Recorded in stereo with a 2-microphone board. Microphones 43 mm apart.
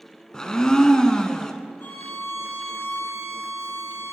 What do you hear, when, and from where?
0.3 s a blender: 15° left (ahead or behind), 0.8 m
1.8 s a violin: 75° left (ahead or behind), 3 m